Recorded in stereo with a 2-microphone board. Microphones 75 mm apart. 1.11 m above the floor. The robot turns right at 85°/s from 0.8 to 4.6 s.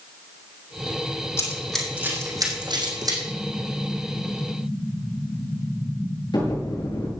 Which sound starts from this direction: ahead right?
An explosion, at 3.2 s.